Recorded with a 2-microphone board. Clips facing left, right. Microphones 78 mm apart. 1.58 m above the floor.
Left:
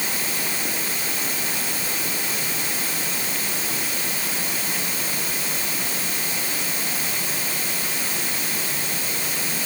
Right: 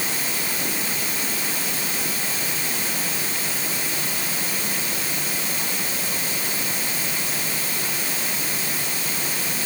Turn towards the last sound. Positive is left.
No sound to turn to.